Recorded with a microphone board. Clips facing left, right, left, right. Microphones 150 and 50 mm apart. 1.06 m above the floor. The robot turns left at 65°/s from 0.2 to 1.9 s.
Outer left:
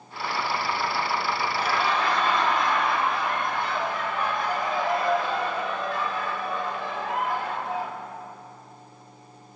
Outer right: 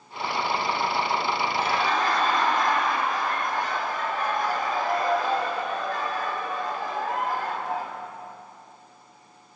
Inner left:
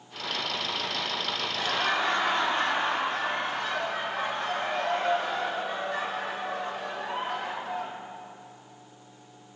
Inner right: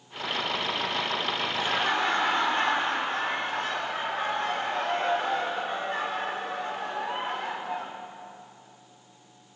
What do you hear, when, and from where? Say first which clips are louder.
1.5 s laughter: even, even; 20° right (ahead or behind), 4 m; by 8.0 s 45° right (ahead or behind), 4 m